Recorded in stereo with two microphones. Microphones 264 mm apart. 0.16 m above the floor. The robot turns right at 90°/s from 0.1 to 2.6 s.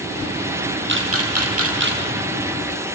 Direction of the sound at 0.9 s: 45° right (ahead or behind).